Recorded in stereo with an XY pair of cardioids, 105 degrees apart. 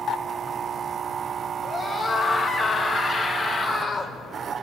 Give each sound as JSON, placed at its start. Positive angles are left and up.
{"t": 1.6, "sound": "a scream", "azimuth_deg": 40, "distance_m": 6.0}